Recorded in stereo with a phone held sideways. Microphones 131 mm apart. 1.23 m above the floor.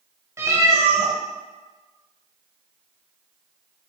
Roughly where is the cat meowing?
Right.